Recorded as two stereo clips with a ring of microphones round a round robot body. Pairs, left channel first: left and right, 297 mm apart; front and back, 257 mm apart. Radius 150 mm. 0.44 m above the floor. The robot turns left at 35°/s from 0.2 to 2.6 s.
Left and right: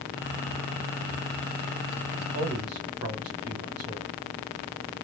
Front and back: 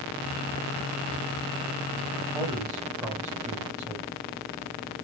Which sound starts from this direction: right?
A man speaking, at 2.3 s.